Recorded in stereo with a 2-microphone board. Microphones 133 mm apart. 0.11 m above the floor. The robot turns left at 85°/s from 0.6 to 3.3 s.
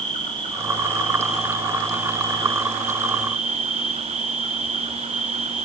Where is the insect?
115° left, 5 m; by 5.6 s 115° right, 5 m.